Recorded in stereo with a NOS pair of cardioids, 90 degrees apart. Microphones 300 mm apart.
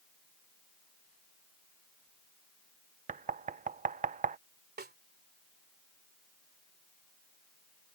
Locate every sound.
3.1 s knocking: 25° right
4.8 s a snare drum: 30° right